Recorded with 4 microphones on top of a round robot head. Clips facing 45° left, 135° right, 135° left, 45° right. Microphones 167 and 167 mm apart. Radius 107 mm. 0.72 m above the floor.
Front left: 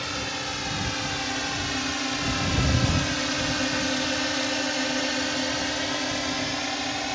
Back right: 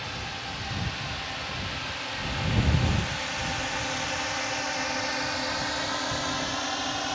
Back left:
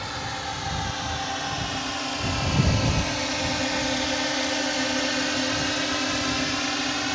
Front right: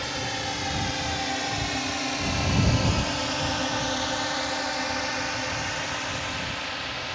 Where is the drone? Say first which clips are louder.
Front left 5 dB, front right 1 dB; 20° left; by 7.1 s 120° left.